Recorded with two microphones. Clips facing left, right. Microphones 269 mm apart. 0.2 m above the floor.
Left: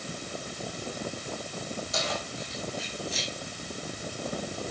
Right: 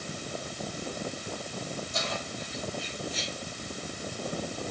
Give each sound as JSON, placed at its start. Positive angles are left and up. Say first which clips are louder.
{"t": 1.9, "sound": "keys jangling", "louder": "left 1 dB", "side_deg": 80, "distance_m": 7.0}